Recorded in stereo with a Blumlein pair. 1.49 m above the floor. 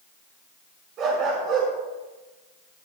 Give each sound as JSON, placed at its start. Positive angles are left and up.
{"t": 1.0, "sound": "a dog barking", "azimuth_deg": -35, "distance_m": 6.0}